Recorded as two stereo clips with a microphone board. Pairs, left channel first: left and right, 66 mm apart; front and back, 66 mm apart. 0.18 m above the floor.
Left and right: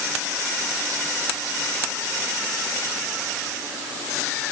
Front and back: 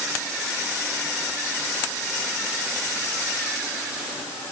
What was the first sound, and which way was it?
Only background noise.